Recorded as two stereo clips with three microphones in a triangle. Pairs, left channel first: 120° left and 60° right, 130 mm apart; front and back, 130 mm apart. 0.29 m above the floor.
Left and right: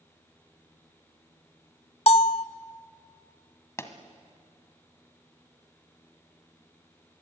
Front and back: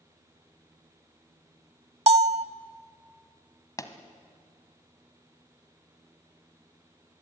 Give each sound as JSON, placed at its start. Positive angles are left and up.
{"t": 2.1, "sound": "a bell", "azimuth_deg": 155, "distance_m": 0.6}
{"t": 3.8, "sound": "a pop", "azimuth_deg": 55, "distance_m": 1.4}